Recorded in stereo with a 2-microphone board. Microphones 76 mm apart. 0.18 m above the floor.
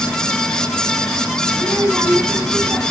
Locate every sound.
1.5 s a child speaking: 30° right (ahead or behind), 3.5 m